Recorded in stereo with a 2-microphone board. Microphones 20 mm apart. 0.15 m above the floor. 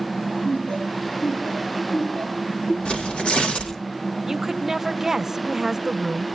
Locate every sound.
0.5 s laughter: 55° left (ahead or behind), 4 m; by 2.8 s 60° left (ahead or behind), 5.5 m
2.9 s tearing paper: 80° left, 6.5 m
4.2 s a woman speaking: 25° right (ahead or behind), 1.2 m